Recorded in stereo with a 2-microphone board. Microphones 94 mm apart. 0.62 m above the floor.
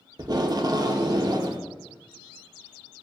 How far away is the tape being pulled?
About 0.6 m.